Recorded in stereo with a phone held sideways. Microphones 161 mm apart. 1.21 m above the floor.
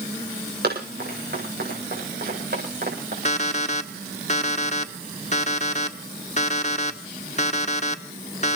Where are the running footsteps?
80° right, 8.5 m; by 3.1 s 70° right (ahead or behind), 8.5 m.